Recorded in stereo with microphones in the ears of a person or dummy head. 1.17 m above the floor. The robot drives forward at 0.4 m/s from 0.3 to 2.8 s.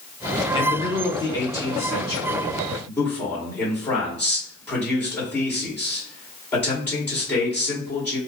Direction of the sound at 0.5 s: 25° left (ahead or behind).